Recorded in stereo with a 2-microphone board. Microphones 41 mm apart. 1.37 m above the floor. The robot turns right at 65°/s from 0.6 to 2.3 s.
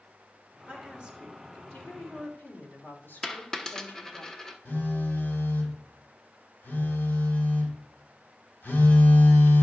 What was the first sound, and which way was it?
A woman speaking, 45° right.